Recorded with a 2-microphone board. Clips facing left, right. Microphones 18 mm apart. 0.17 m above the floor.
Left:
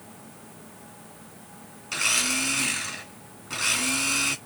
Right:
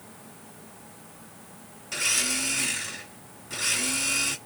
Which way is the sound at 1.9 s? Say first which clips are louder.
Left 2 dB; 35° left (ahead or behind).